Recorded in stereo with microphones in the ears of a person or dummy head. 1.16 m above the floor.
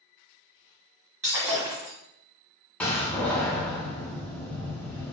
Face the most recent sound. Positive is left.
turn(degrees=10)  # may be behind; listen again after turning